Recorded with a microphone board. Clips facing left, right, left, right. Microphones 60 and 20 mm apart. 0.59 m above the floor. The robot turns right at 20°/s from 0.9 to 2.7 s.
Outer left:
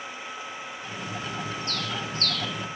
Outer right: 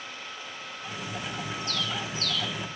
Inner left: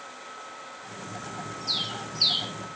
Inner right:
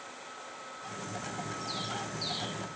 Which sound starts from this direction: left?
A bird, at 1.7 s.